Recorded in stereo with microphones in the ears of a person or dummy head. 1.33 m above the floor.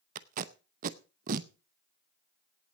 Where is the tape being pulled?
50° right (ahead or behind), 0.9 m.